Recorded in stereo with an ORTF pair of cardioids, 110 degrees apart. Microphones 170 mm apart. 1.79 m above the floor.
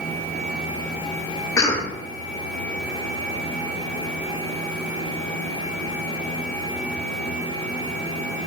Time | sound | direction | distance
1.6 | a cough | 20° left | 0.7 m